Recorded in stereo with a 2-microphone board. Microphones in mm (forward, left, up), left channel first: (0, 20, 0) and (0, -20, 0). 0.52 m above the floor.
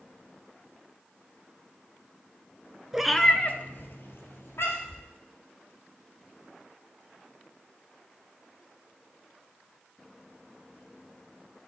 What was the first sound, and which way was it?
A cat meowing, 15° right (ahead or behind).